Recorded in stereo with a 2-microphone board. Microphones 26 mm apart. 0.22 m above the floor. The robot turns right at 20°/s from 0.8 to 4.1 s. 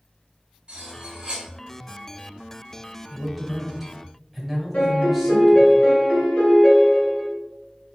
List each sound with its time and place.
0.7 s cutlery clinking: 40° right (ahead or behind), 1.4 m; by 1.5 s 30° right (ahead or behind), 1.4 m
3.1 s a man speaking: 10° left (ahead or behind), 1.0 m; by 5.7 s centre (ahead or behind), 1.0 m
4.7 s a piano: 60° left (ahead or behind), 1.5 m